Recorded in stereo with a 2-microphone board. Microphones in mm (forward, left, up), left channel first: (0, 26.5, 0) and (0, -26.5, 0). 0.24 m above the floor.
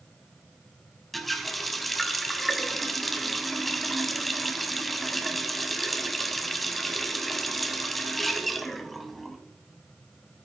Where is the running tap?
5° left (ahead or behind), 1.1 m.